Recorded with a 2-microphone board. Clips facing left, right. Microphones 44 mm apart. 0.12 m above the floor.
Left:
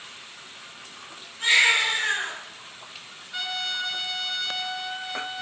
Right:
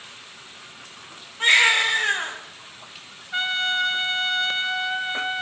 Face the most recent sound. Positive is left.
turn(degrees=-40)  # may be behind; listen again after turning